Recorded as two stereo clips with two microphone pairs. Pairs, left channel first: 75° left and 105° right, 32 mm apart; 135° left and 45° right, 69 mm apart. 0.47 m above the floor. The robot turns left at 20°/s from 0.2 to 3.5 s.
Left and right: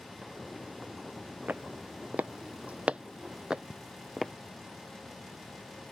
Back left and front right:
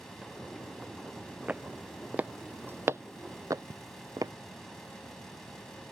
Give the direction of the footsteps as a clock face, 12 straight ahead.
4 o'clock.